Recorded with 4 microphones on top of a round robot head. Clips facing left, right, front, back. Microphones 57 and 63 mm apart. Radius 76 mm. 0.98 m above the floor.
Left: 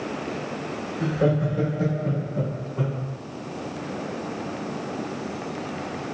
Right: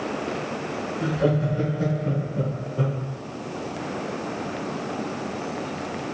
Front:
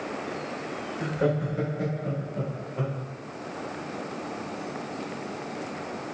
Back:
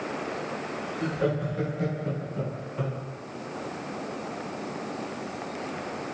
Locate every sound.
1.0 s laughter: 60° left, 1.1 m; by 3.0 s 65° left, 2.5 m